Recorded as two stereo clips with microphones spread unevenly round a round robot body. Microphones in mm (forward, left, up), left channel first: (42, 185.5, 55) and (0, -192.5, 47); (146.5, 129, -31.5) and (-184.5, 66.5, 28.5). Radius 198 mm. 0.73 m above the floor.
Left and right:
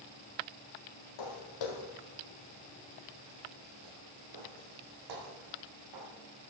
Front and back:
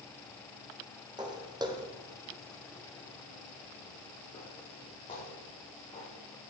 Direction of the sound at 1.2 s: 115° left.